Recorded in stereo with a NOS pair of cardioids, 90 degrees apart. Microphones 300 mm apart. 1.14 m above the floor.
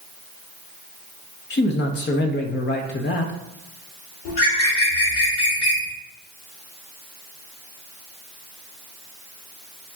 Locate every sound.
1.5 s a man speaking: 35° left, 0.6 m
4.2 s a bird: 70° left, 1.4 m